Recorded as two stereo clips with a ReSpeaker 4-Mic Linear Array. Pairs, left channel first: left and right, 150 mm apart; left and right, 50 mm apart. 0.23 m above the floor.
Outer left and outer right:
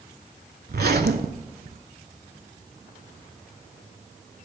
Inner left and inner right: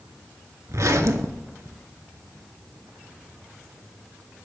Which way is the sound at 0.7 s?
80° right.